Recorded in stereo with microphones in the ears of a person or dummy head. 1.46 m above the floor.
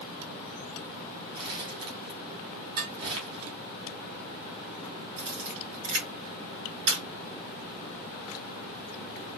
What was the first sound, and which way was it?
Crumpling, 35° right (ahead or behind).